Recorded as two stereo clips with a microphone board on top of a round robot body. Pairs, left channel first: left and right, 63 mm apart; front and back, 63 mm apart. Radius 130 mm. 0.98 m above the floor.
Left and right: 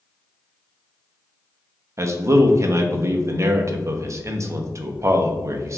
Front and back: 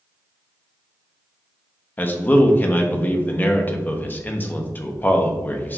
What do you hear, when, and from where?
2.0 s a man speaking: 55° right, 0.9 m